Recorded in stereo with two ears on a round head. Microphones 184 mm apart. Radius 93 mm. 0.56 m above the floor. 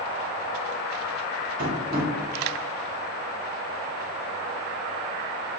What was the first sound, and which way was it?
Tapping, 40° right (ahead or behind).